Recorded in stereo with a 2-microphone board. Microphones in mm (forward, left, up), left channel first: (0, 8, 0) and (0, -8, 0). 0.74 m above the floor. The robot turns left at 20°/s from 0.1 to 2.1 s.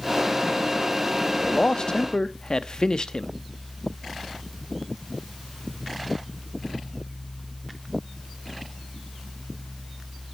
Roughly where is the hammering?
I don't hear hammering.